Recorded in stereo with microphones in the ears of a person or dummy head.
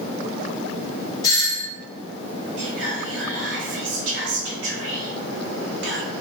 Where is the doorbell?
15° left (ahead or behind), 1.0 m.